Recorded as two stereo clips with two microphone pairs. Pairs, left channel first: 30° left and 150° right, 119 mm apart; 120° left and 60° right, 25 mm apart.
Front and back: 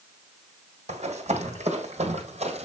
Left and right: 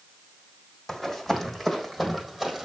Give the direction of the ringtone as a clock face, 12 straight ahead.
No ringtone in this recording.